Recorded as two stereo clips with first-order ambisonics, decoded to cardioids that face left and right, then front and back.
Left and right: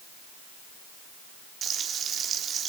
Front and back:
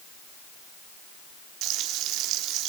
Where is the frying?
150° right, 3 m.